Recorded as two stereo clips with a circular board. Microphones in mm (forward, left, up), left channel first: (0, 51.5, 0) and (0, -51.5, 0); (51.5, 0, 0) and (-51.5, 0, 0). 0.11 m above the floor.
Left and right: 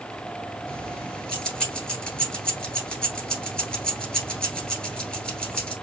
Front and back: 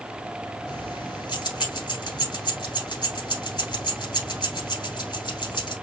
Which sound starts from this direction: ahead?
Keys jangling, at 0.7 s.